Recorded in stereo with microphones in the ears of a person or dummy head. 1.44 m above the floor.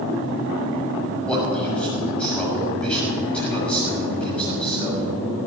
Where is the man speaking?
10° left (ahead or behind), 6.5 m.